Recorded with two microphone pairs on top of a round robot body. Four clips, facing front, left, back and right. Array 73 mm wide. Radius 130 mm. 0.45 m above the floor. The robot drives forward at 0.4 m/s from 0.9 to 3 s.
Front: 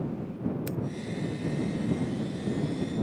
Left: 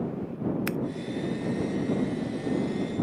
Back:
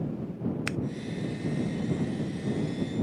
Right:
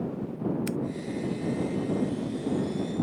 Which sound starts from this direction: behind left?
Scissors, at 0.7 s.